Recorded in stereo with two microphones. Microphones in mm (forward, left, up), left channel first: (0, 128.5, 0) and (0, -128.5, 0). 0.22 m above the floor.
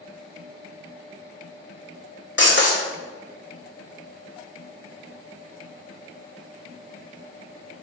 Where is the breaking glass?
50° left (ahead or behind), 1.1 m.